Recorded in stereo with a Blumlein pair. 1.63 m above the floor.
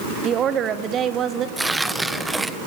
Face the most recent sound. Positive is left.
turn(degrees=-5)